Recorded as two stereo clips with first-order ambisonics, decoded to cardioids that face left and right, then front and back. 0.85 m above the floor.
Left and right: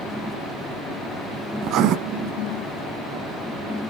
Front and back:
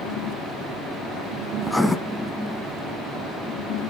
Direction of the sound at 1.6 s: 85° right.